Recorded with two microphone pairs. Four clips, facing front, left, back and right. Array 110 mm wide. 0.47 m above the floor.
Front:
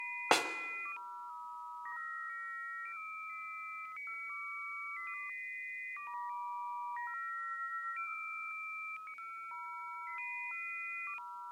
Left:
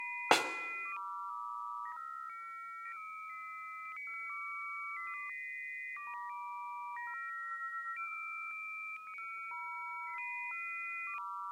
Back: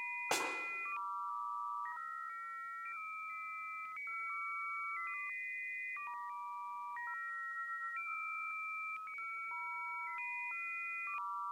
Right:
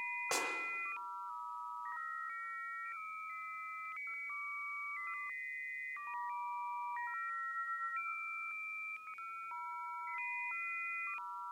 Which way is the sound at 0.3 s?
50° left.